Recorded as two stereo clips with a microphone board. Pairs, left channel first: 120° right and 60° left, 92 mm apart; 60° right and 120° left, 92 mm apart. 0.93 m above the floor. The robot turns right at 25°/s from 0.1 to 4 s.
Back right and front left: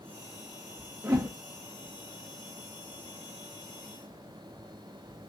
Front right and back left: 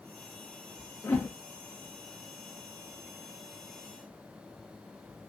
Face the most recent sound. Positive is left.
turn(degrees=75)